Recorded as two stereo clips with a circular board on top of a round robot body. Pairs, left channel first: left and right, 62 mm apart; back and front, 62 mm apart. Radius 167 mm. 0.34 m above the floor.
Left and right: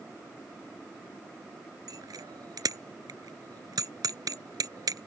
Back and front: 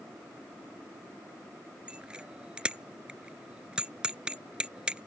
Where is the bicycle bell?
75° right.